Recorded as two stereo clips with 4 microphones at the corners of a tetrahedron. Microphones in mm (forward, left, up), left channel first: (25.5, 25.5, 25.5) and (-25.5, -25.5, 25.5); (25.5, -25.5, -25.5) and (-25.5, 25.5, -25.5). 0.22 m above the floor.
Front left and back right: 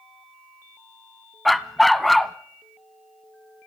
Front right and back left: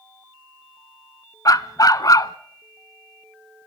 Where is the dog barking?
40° right, 0.7 m.